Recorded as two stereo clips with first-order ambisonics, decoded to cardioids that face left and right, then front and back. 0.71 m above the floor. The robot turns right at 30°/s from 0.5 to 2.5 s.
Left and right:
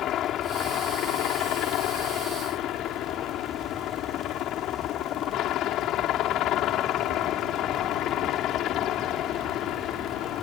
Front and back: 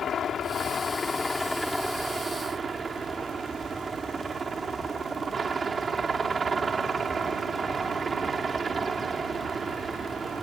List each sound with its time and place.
0.0 s a helicopter: 55° left; by 10.4 s 115° left